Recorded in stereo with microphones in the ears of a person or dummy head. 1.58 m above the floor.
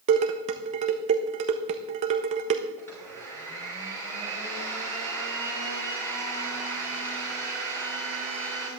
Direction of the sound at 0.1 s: 40° right (ahead or behind).